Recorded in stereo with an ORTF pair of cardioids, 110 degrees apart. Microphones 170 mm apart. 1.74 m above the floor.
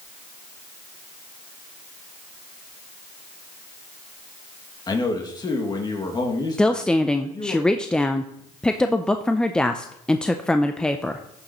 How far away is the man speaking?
About 2 m.